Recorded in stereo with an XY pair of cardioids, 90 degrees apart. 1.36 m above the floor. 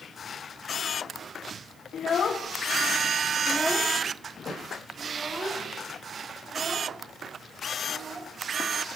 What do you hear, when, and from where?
1.9 s a child speaking: 65° left, 1.7 m; by 8.3 s 35° right, 5.5 m